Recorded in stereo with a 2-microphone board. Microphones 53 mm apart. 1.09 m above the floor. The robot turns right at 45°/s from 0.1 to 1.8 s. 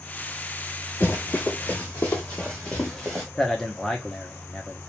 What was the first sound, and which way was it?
Running footsteps, 40° left (ahead or behind).